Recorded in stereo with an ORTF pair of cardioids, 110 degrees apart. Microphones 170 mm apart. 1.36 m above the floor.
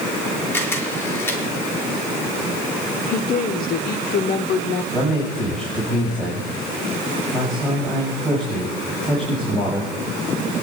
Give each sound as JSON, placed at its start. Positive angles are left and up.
{"t": 0.5, "sound": "a camera shutter", "azimuth_deg": 15, "distance_m": 5.0}
{"t": 3.1, "sound": "a woman speaking", "azimuth_deg": 65, "distance_m": 0.8}
{"t": 4.9, "sound": "a man speaking", "azimuth_deg": 5, "distance_m": 7.5}